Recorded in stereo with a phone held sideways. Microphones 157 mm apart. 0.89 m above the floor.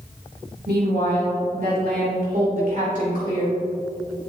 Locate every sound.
0.7 s a woman speaking: 75° right (ahead or behind), 3 m; by 3.6 s 55° right (ahead or behind), 4 m